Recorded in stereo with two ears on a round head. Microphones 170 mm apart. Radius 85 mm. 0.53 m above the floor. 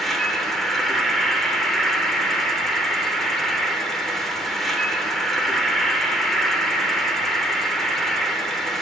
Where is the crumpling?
I don't hear crumpling.